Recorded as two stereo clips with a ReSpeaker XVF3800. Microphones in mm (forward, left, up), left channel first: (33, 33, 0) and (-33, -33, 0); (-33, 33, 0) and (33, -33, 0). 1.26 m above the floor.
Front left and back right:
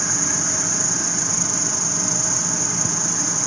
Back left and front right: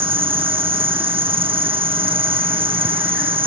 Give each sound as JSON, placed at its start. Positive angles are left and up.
{"t": 0.0, "sound": "an insect", "azimuth_deg": -45}